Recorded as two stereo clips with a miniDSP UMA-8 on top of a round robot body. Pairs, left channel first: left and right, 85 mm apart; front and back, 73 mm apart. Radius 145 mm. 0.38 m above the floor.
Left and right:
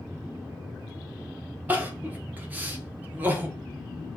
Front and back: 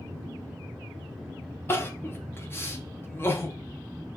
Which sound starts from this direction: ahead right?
Crying, at 1.7 s.